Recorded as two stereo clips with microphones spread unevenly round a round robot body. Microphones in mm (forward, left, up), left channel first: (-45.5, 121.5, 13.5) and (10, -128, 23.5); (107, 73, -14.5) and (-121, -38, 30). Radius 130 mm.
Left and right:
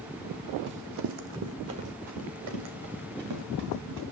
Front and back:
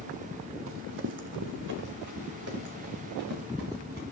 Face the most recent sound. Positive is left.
turn(degrees=-100)